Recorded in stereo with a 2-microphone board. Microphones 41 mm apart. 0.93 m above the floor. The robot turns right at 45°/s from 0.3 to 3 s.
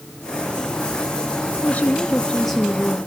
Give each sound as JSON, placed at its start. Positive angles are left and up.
{"t": 1.6, "sound": "a woman speaking", "azimuth_deg": 135, "distance_m": 1.5}